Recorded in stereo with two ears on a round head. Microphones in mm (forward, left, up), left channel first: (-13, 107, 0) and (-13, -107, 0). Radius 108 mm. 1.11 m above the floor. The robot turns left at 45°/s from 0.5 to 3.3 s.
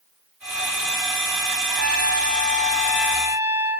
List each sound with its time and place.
1.7 s a trumpet: 50° left, 2.5 m; by 3.8 s 20° right, 2.5 m